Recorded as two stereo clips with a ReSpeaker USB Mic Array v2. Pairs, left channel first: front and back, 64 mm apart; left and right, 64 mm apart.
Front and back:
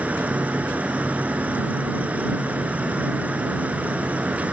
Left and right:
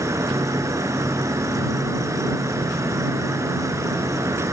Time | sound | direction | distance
0.0 | an insect | 115° right | ?